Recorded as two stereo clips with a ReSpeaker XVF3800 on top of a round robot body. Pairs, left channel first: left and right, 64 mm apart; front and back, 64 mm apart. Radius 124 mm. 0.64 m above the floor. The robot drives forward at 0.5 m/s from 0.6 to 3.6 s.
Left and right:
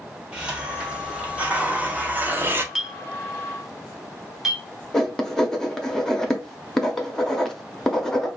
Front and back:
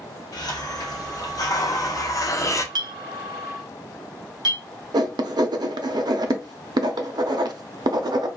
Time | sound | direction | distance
0.3 | a hiss | 15° right | 1.8 m
2.8 | a clink | 175° right | 0.5 m
4.9 | writing | 175° left | 0.6 m